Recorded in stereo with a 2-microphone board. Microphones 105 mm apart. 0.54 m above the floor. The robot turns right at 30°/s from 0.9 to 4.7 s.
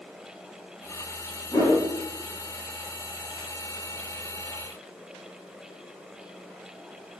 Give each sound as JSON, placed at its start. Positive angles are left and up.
{"t": 1.5, "sound": "a whoosh", "side_deg": 30, "distance_m": 1.0}